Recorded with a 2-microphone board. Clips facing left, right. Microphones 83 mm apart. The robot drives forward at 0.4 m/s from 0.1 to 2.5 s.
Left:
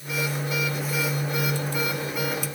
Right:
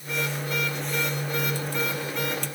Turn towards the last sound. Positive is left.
No sound to turn to.